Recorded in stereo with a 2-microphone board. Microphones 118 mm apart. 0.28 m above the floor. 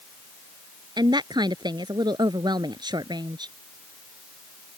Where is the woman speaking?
35° right (ahead or behind).